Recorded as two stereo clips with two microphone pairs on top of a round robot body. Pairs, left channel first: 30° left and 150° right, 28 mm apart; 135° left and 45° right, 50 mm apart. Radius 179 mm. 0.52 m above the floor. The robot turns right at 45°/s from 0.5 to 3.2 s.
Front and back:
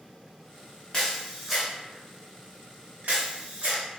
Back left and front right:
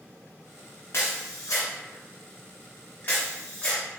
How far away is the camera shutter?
About 0.5 m.